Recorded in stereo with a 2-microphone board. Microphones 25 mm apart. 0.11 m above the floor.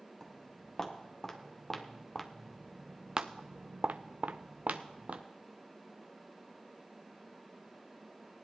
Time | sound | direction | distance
0.2 | footsteps | 10° left (ahead or behind) | 2.5 m